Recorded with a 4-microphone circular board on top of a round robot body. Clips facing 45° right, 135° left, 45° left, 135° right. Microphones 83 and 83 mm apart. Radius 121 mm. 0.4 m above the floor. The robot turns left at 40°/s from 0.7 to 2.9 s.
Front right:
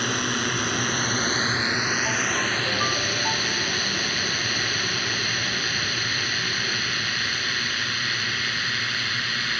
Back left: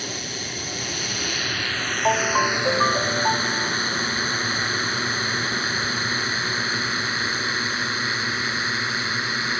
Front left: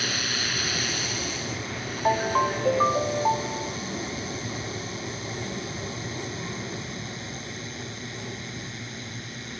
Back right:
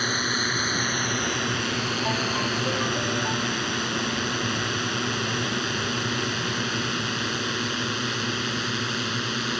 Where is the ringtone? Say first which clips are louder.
Back left 6 dB, front left 8 dB; 105° left; by 3.8 s 70° left.